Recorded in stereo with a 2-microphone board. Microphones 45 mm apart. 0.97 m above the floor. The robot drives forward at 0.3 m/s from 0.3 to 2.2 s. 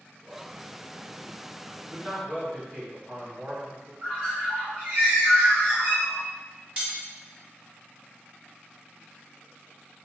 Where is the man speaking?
25° right (ahead or behind), 1.2 m; by 3.9 s 30° right (ahead or behind), 1.2 m.